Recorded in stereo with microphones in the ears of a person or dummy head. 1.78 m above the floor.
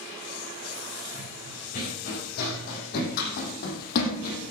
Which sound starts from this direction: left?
Running footsteps, at 1.1 s.